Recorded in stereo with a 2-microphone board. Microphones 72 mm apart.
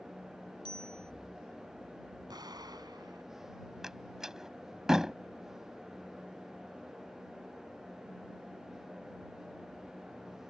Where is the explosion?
65° right (ahead or behind).